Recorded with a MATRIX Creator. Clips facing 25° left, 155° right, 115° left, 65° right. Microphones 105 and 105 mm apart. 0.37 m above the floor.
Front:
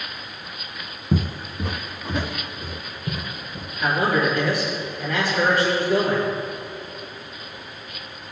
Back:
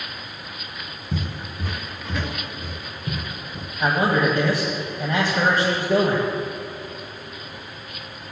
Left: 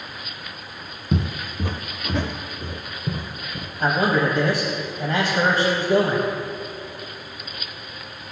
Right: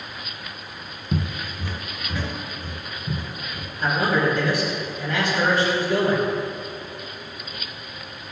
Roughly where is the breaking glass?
I don't hear breaking glass.